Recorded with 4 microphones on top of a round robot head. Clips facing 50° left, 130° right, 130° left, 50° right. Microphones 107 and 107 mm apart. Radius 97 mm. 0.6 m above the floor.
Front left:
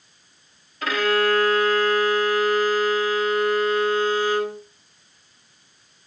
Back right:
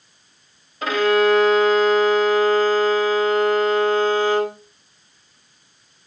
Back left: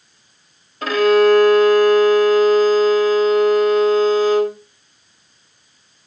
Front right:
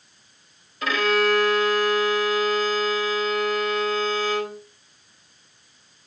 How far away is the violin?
About 1.8 m.